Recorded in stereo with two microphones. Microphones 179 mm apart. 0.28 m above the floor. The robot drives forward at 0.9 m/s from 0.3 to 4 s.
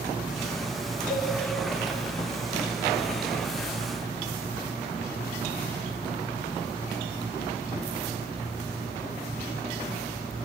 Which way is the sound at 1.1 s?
70° left (ahead or behind).